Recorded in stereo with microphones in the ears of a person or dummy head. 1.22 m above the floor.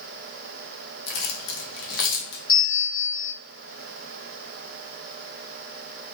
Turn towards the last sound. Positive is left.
turn(degrees=70)  # may be behind; listen again after turning